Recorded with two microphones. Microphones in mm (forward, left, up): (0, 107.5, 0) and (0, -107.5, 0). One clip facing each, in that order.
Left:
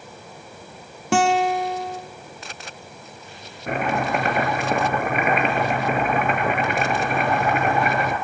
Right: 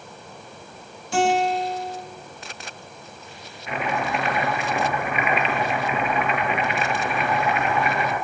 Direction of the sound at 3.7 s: 50° left (ahead or behind).